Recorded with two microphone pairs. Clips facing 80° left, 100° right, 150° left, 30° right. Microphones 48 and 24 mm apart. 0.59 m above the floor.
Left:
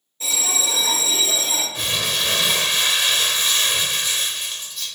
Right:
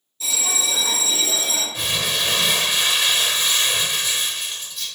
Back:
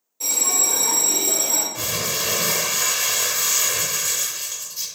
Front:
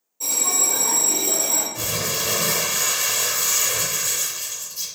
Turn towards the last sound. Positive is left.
turn(degrees=180)